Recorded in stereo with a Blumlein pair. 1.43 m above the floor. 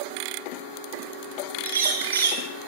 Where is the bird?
60° right, 6 m.